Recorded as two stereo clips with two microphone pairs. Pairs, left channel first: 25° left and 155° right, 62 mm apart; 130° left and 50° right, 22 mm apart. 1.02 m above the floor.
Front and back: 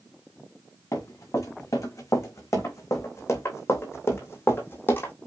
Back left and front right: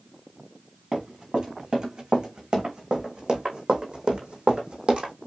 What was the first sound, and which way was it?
Running footsteps, 5° right.